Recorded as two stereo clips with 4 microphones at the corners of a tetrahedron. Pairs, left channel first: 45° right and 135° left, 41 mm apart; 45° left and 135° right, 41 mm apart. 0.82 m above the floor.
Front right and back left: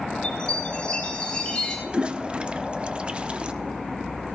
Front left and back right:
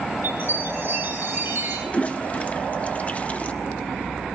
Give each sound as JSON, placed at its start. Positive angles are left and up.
{"t": 0.2, "sound": "a chime", "azimuth_deg": -115, "distance_m": 6.5}
{"t": 1.9, "sound": "a toilet flushing", "azimuth_deg": 85, "distance_m": 0.5}